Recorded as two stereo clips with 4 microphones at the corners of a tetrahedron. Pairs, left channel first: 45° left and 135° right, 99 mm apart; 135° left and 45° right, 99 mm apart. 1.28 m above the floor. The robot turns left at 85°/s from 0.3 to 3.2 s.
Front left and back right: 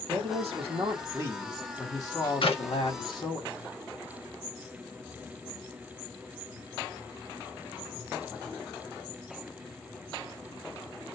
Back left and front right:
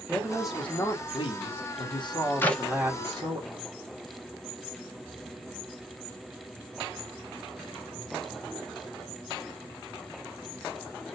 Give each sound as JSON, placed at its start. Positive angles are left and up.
{"t": 0.1, "sound": "a man speaking", "azimuth_deg": -115, "distance_m": 1.6}
{"t": 2.4, "sound": "a clap", "azimuth_deg": 65, "distance_m": 1.0}